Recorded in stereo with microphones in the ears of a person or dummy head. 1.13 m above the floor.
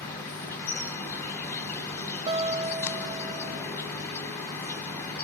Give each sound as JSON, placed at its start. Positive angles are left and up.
{"t": 0.0, "sound": "an insect", "side_deg": 20, "distance_m": 1.4}
{"t": 2.3, "sound": "a guitar", "side_deg": -25, "distance_m": 0.6}